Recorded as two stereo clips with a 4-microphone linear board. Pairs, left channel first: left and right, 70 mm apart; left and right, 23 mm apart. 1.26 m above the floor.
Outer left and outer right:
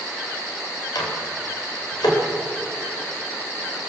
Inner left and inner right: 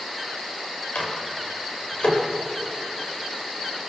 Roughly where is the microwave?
Left.